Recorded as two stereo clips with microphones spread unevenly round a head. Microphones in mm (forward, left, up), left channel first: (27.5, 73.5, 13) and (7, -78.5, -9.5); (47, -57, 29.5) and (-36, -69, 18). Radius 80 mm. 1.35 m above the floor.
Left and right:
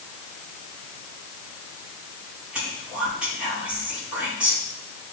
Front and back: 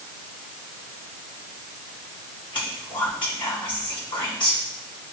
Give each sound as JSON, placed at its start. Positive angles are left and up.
{"t": 2.5, "sound": "whispering", "azimuth_deg": -15, "distance_m": 3.5}